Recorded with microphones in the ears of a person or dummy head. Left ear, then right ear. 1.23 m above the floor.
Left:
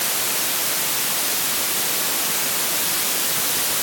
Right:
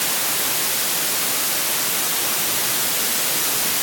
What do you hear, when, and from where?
Only background noise.